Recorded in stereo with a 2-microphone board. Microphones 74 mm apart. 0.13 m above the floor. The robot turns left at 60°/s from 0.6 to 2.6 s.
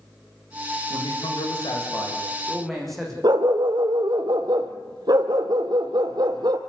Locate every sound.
0.9 s a man speaking: 105° left, 7 m; by 3.1 s straight ahead, 7 m
3.2 s a dog barking: 65° right (ahead or behind), 1.5 m